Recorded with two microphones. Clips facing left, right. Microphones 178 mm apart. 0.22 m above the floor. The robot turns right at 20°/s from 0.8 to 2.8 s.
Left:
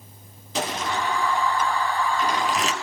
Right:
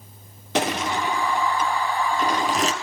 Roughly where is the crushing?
Right.